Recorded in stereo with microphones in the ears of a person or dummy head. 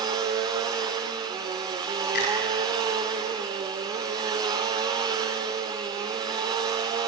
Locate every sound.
0.0 s a machine running: 15° right (ahead or behind), 1.2 m
2.1 s a finger snap: 50° left (ahead or behind), 9 m